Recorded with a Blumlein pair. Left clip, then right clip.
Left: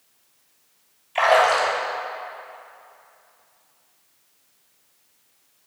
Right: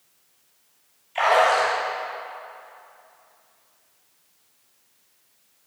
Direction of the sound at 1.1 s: 20° left.